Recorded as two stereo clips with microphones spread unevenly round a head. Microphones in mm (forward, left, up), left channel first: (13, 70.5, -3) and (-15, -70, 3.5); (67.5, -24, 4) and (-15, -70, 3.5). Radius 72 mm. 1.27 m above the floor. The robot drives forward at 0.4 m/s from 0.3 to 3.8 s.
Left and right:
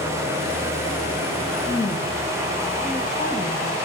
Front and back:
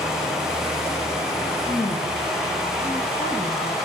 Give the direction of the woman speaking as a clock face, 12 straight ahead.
11 o'clock.